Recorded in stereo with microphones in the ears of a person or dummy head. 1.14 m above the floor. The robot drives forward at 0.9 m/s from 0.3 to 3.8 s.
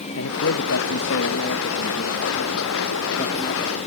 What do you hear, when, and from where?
0.2 s a man speaking: 70° left (ahead or behind); by 3.8 s 20° left (ahead or behind)